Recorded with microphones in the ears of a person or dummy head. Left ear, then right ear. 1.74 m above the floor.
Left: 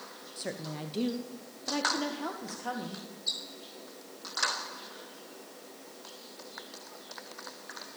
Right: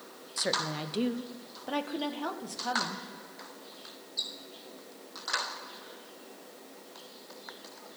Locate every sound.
0.4 s a woman speaking: 30° right (ahead or behind), 0.6 m; by 3.1 s 10° right (ahead or behind), 2 m